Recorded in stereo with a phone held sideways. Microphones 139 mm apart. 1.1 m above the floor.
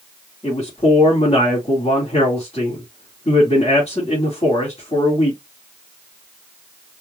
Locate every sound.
0.4 s a man speaking: 50° left (ahead or behind), 2.5 m